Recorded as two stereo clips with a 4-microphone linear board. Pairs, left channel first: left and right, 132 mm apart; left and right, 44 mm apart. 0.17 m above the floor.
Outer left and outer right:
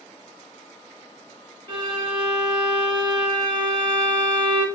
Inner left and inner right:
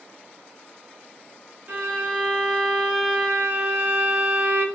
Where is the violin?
40° right (ahead or behind), 1.3 m.